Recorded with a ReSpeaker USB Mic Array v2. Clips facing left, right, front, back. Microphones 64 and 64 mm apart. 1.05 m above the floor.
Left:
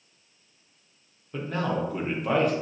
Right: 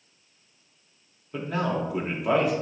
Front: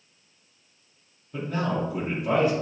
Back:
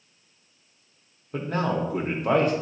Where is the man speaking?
175° right, 1.1 m.